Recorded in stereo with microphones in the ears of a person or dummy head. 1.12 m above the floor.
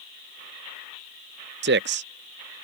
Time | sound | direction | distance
1.6 | a man speaking | 50° right (ahead or behind) | ?